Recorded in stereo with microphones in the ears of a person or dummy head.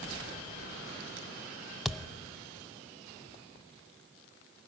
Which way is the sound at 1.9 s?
Centre (ahead or behind).